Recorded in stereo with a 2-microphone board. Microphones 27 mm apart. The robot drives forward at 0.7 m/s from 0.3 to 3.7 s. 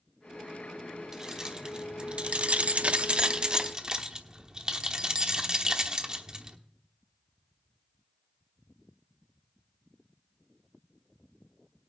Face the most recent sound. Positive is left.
turn(degrees=-25)  # may be behind; listen again after turning